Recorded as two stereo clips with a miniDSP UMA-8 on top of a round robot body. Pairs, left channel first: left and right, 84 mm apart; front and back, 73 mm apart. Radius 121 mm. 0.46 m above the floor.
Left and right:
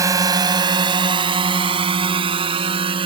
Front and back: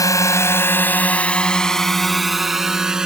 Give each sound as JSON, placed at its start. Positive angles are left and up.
{"t": 0.0, "sound": "a drone", "azimuth_deg": -40}